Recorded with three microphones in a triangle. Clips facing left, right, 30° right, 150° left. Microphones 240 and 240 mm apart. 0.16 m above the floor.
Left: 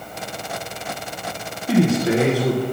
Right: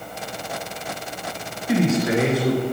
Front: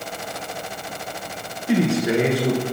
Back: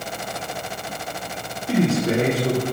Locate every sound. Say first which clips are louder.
1.7 s a man speaking: left 2 dB, front 1 dB; 40° left, 2 m